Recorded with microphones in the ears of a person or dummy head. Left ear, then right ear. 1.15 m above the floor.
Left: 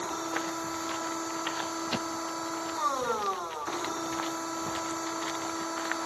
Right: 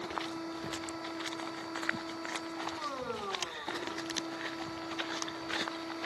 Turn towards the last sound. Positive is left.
turn(degrees=40)  # may be behind; listen again after turning